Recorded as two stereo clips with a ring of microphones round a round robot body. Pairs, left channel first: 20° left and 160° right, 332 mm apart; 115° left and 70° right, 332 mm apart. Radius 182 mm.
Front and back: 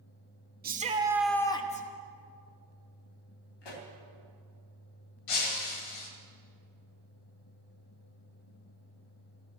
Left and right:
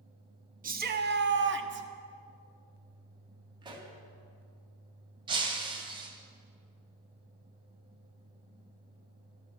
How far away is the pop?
About 2.5 m.